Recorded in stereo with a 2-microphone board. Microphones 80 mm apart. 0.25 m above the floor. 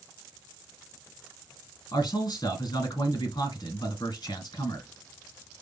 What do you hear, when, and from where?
1.9 s a man speaking: 60° left (ahead or behind), 3 m